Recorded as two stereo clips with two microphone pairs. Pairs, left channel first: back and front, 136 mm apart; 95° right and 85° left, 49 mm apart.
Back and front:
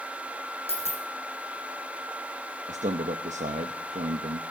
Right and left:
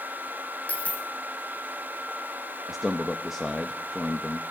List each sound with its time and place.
0.7 s a dropped coin: 150° right, 2.5 m
2.7 s a man speaking: 5° left, 1.0 m